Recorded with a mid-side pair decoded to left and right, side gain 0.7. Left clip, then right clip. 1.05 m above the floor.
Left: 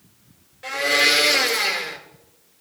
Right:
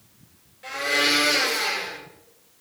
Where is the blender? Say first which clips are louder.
Left 4 dB; 35° left, 4.5 m.